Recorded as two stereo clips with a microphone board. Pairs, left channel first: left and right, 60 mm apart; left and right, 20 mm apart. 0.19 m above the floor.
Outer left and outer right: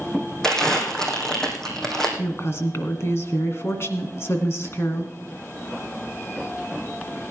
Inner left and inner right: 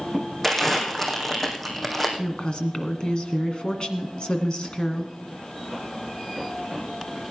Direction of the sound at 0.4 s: 10° left (ahead or behind).